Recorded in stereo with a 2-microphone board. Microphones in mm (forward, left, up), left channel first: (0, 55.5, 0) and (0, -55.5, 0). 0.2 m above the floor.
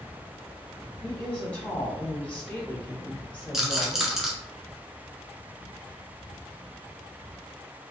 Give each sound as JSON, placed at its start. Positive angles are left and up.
{"t": 1.0, "sound": "a woman speaking", "side_deg": 15, "distance_m": 1.3}
{"t": 3.5, "sound": "a rattle", "side_deg": -5, "distance_m": 1.1}